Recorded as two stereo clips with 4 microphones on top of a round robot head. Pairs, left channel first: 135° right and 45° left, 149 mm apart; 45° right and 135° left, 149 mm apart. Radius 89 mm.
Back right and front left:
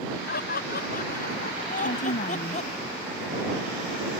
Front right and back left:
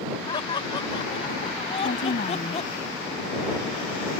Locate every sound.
0.3 s laughter: 110° right; by 2.7 s 90° right
1.8 s a woman speaking: 95° right